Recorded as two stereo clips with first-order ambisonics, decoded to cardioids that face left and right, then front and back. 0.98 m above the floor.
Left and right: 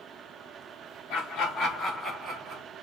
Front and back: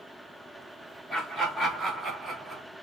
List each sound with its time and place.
1.1 s laughter: 95° left, 1.0 m; by 2.6 s 110° right, 1.0 m